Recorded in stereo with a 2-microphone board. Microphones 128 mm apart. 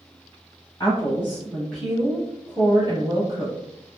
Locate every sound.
0.8 s a woman speaking: 25° left (ahead or behind), 1.2 m; by 3.5 s 40° right (ahead or behind), 1.6 m